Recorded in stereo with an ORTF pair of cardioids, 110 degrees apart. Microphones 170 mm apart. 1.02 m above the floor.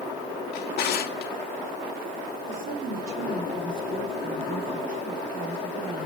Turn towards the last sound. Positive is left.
turn(degrees=-65)